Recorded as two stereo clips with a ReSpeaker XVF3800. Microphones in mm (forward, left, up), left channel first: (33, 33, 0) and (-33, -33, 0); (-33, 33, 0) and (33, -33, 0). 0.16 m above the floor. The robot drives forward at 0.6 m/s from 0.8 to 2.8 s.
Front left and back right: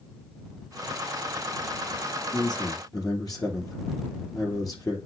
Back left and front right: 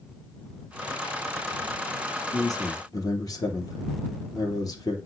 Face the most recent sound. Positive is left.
turn(degrees=90)